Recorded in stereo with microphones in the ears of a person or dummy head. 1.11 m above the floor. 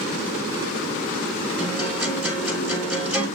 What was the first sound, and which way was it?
A guitar, 10° right (ahead or behind).